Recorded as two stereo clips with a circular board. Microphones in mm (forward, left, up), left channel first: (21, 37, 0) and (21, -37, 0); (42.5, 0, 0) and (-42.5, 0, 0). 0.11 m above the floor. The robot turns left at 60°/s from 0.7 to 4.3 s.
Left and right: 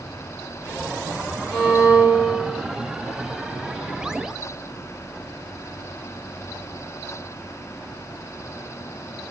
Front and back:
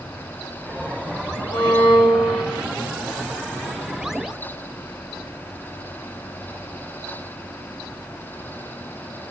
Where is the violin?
5° right, 6 m; by 2.6 s 70° right, 6 m.